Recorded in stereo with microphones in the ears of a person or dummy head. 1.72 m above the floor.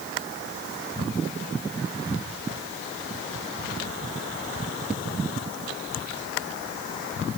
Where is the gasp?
I don't hear a gasp.